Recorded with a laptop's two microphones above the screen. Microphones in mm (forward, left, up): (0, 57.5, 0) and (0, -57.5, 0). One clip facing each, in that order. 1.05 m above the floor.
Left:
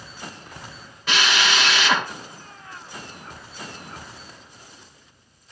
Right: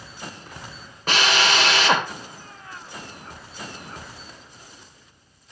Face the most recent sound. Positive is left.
turn(degrees=-45)  # may be behind; listen again after turning